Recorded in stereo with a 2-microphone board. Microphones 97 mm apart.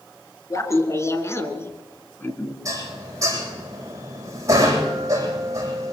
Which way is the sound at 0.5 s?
35° left (ahead or behind).